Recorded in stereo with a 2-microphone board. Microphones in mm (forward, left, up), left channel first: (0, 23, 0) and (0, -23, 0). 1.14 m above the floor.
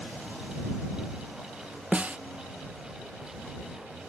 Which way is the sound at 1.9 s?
30° right (ahead or behind).